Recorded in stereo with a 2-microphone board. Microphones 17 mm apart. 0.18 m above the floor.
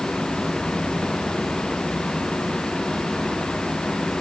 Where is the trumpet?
I don't hear a trumpet.